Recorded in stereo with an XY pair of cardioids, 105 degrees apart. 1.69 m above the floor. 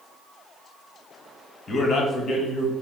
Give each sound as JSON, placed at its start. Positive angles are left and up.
{"t": 1.7, "sound": "a man speaking", "azimuth_deg": 40, "distance_m": 1.0}